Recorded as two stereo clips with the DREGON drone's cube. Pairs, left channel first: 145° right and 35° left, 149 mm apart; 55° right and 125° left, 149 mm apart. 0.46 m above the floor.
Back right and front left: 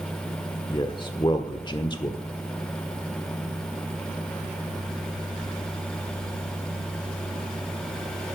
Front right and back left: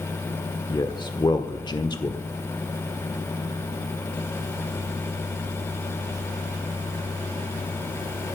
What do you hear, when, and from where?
0.7 s a man speaking: 100° right, 1.1 m